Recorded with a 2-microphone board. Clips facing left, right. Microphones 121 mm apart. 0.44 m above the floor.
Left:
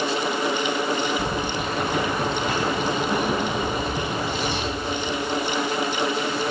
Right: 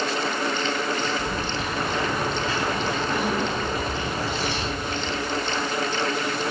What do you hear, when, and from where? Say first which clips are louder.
1.2 s keys jangling: left 2 dB; 55° left (ahead or behind), 3 m